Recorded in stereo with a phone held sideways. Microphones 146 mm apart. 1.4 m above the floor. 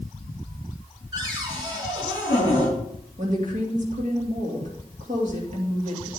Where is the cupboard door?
30° right (ahead or behind), 4.5 m.